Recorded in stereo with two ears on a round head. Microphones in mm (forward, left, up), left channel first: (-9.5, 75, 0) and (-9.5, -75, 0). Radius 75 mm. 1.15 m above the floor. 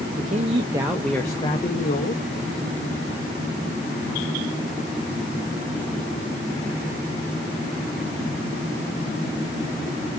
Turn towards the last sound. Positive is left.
turn(degrees=50)  # may be behind; listen again after turning